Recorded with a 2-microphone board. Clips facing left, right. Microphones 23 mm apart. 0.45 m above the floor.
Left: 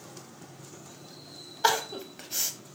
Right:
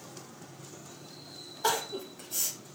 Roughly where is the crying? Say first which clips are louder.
Left 4 dB; left.